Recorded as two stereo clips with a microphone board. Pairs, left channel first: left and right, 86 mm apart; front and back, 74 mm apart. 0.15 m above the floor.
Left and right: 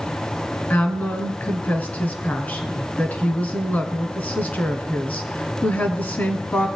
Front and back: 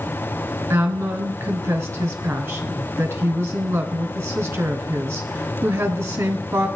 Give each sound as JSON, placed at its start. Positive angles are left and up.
{"t": 0.7, "sound": "a woman speaking", "azimuth_deg": 150, "distance_m": 1.4}